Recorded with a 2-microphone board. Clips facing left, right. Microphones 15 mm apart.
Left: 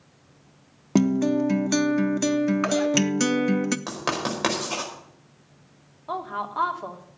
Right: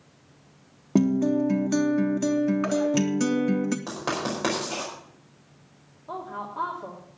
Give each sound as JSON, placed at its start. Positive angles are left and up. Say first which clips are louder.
{"t": 0.9, "sound": "a guitar", "louder": "left 1 dB", "side_deg": 35, "distance_m": 0.7}
{"t": 3.9, "sound": "writing", "louder": "left 2 dB", "side_deg": 30, "distance_m": 5.0}
{"t": 6.1, "sound": "a woman speaking", "louder": "left 4 dB", "side_deg": 60, "distance_m": 2.5}